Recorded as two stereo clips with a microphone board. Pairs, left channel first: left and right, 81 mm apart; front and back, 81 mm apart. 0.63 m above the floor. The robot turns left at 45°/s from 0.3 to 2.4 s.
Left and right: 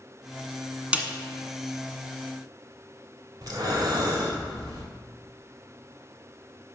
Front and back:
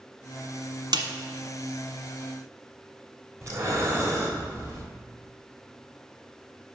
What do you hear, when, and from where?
0.9 s a snare drum: 165° right, 1.1 m; by 1.1 s 170° right, 1.1 m
3.4 s breathing: 130° right, 1.9 m